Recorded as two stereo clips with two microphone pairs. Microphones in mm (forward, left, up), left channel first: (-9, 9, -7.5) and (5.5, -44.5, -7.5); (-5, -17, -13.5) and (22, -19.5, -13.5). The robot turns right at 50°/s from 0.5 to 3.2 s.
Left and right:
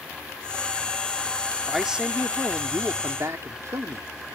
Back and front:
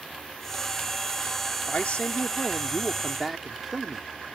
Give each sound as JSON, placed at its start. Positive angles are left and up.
{"t": 1.7, "sound": "a man speaking", "azimuth_deg": -165}